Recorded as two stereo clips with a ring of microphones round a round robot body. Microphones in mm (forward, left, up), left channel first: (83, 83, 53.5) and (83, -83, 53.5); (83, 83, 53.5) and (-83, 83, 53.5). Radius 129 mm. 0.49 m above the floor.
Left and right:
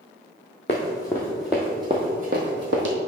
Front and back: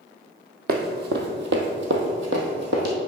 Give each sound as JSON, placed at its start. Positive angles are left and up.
{"t": 0.7, "sound": "running footsteps", "azimuth_deg": 155, "distance_m": 1.1}